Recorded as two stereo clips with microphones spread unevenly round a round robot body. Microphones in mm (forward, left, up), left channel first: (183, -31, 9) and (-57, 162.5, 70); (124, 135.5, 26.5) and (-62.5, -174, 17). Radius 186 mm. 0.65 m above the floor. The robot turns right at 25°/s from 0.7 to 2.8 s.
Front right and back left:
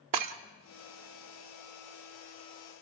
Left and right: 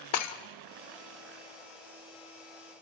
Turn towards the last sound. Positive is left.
turn(degrees=165)